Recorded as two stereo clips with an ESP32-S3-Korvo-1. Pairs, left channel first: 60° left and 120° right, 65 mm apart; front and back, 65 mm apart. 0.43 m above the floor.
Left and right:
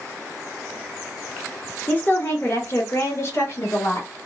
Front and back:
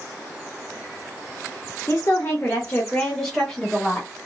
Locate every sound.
1.9 s a woman speaking: 15° left, 1.0 m; by 4.1 s 95° left, 1.4 m